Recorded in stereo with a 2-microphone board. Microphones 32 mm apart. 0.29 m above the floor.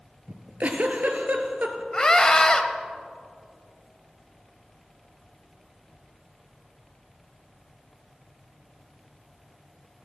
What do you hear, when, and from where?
0.3 s a giggle: 60° right (ahead or behind), 1.2 m
1.9 s a scream: 20° left (ahead or behind), 1.0 m